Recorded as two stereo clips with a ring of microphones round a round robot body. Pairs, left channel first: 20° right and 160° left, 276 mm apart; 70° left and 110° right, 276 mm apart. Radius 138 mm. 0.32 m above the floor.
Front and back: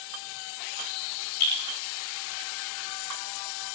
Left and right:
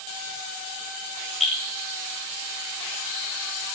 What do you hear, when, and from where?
1.4 s dripping: 25° right, 5 m